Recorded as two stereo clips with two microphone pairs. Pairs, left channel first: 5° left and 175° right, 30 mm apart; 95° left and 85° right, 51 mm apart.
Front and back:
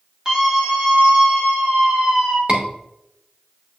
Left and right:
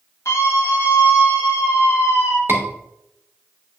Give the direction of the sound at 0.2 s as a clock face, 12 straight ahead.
8 o'clock.